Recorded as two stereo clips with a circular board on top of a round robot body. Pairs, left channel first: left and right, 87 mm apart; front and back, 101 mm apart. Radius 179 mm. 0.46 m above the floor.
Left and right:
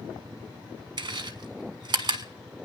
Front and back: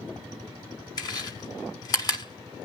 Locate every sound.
1.0 s chewing: 55° right, 0.9 m